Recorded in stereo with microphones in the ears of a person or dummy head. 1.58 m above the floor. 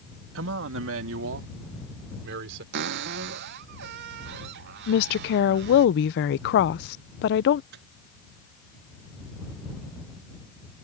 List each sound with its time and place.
0.3 s a man speaking: 75° right (ahead or behind); by 2.6 s 70° right (ahead or behind)
2.7 s a cupboard door: 55° right (ahead or behind)
4.9 s a woman speaking: 60° left (ahead or behind)
7.7 s a microwave: 60° right (ahead or behind)